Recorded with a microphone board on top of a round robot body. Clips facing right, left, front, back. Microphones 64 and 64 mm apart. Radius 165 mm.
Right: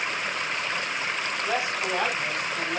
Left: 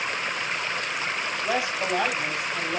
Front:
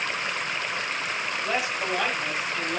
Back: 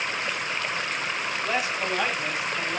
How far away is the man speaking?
About 6 m.